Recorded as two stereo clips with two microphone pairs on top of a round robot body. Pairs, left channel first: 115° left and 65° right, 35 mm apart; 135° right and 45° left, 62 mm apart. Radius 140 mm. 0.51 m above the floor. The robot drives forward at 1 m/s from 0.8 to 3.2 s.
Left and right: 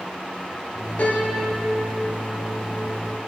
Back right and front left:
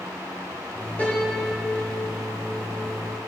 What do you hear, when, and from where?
1.0 s a piano: 150° left, 4 m; by 3.2 s 160° left, 6 m